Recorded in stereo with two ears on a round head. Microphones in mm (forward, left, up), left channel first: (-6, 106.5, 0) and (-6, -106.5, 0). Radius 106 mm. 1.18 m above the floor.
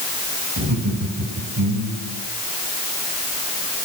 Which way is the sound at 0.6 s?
80° right.